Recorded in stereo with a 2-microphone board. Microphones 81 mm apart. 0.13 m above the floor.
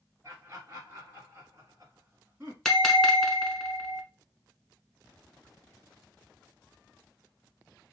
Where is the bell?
5° left (ahead or behind), 1.0 m.